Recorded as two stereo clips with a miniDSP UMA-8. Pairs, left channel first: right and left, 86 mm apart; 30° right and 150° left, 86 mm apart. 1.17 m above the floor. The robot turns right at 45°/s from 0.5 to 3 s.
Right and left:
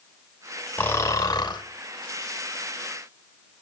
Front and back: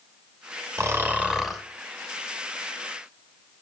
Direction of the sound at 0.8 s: 155° right.